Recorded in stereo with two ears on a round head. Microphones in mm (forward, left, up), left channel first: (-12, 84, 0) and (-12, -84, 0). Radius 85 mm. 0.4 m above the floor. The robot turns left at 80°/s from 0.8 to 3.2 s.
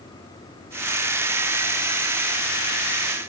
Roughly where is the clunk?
I don't hear a clunk.